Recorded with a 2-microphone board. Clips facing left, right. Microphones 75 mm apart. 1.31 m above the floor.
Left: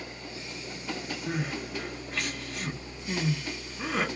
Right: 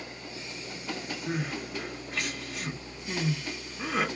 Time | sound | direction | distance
1.3 | crying | centre (ahead or behind) | 1.0 m